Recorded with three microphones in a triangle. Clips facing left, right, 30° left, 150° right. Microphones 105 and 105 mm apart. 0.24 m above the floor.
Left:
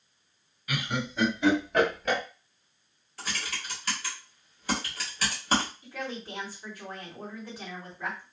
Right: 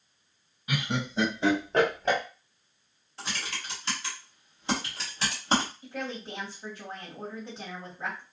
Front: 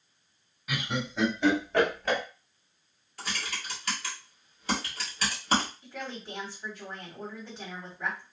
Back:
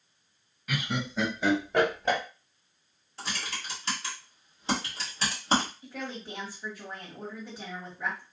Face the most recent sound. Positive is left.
turn(degrees=-75)